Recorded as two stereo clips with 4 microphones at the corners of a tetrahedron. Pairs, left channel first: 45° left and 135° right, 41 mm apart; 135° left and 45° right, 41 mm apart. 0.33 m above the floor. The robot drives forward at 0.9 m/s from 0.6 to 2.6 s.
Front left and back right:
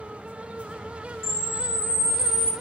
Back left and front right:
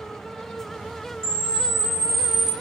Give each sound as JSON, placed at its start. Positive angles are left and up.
{"t": 1.2, "sound": "a camera shutter", "azimuth_deg": 65, "distance_m": 0.6}